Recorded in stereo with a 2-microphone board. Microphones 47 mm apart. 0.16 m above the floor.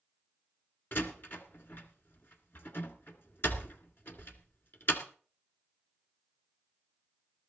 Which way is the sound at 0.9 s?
50° left (ahead or behind).